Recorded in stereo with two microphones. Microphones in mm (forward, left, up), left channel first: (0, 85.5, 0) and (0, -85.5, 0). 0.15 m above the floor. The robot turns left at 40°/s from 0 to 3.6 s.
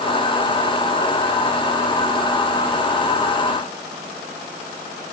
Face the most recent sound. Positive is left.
No sound to turn to.